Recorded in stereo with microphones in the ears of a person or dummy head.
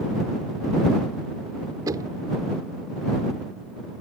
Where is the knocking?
20° right (ahead or behind).